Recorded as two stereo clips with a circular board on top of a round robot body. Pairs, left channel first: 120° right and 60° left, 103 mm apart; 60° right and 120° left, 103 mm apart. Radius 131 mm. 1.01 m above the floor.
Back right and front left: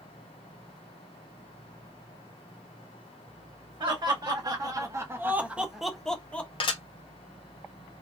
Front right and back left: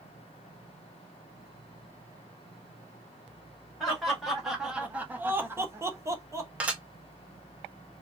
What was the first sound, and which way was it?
Laughter, 25° left.